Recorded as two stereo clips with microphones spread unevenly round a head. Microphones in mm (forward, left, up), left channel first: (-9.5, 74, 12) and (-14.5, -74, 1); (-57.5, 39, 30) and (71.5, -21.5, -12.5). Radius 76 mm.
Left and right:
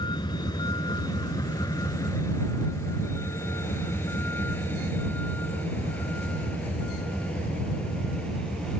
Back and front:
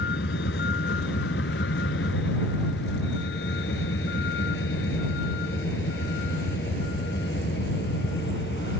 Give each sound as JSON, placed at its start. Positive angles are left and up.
{"t": 0.0, "sound": "a vehicle", "azimuth_deg": 150}